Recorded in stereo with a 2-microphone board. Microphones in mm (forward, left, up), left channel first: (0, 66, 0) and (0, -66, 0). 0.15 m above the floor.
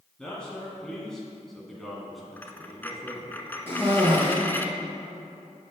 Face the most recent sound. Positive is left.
turn(degrees=15)  # may be behind; listen again after turning